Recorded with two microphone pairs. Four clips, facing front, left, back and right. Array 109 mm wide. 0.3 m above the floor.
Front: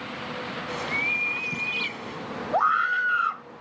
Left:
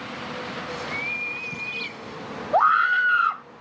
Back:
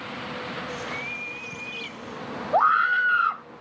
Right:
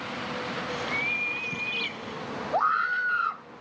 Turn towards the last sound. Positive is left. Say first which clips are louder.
# left 7 dB, back 3 dB
turn(degrees=120)